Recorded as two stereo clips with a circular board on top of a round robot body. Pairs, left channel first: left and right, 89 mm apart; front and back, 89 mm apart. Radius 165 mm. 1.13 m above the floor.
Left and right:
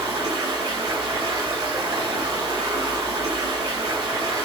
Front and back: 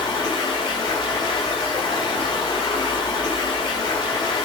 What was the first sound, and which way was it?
Running water, 40° right.